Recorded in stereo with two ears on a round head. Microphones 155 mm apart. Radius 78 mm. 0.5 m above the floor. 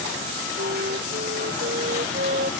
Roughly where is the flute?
Right.